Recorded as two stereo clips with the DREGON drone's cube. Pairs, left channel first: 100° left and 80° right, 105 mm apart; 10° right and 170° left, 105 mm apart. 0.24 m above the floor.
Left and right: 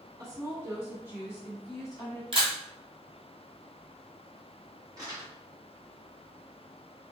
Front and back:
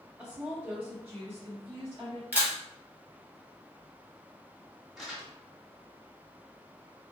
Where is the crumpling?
105° right, 1.4 m.